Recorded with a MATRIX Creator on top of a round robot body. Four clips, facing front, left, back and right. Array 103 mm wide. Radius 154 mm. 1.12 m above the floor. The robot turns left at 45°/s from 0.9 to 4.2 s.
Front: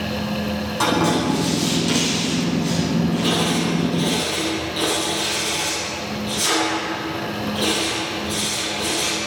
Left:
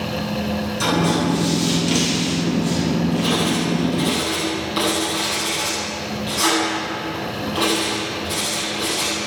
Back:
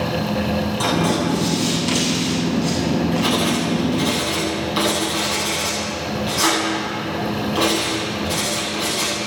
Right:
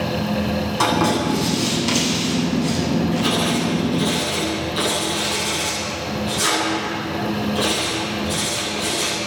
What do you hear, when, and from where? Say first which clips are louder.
0.8 s writing: right 1 dB, front 3 dB; 70° right, 9.5 m; by 9.1 s 145° left, 9.5 m